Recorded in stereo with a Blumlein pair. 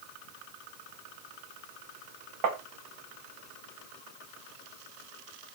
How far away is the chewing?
No chewing in this recording.